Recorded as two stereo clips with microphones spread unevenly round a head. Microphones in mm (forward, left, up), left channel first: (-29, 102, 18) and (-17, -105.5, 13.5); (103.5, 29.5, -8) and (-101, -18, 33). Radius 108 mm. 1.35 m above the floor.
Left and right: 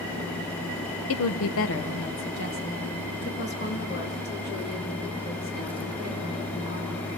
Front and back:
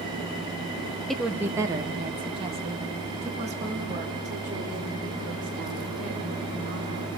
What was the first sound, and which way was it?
A woman speaking, 100° left.